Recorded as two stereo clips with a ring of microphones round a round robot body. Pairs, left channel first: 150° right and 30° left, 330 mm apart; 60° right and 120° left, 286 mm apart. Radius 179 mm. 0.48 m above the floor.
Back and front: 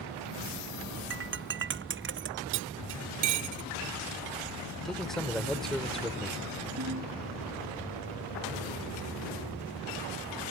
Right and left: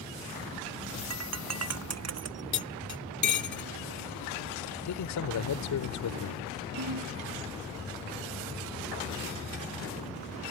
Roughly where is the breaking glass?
Left.